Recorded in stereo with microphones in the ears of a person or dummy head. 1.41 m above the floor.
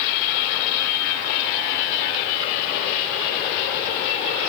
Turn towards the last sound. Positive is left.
No sound to turn to.